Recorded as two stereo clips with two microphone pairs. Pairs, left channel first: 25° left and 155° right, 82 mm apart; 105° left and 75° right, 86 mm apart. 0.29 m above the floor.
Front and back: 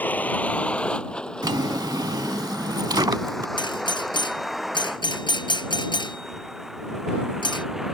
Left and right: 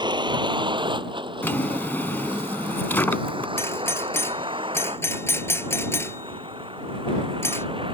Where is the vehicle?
45° right; by 7.9 s 70° right.